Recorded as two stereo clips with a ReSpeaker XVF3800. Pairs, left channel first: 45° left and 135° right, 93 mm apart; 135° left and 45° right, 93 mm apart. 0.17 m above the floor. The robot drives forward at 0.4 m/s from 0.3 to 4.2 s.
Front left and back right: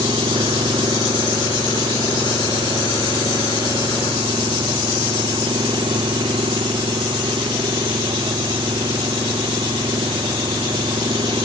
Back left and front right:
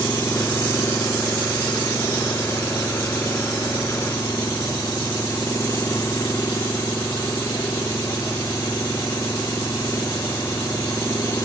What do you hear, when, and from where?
0.0 s an engine running: 165° right